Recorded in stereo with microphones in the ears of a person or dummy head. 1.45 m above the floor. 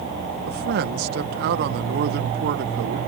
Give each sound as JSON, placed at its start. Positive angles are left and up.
{"t": 0.5, "sound": "a man speaking", "side_deg": -60}